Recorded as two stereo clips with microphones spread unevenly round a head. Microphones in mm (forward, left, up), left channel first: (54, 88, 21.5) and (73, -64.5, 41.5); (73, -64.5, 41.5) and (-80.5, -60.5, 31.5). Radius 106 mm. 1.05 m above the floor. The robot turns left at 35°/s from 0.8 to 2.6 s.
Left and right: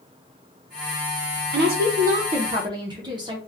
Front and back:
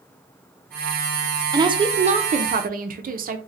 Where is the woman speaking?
115° right, 0.7 m; by 3.4 s 155° right, 0.7 m.